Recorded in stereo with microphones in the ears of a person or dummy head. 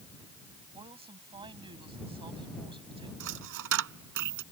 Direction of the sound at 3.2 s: 65° right (ahead or behind).